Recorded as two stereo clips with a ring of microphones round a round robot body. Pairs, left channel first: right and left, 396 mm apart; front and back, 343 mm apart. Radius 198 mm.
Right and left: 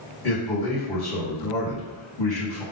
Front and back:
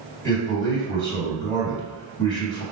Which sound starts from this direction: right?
A man speaking, at 0.2 s.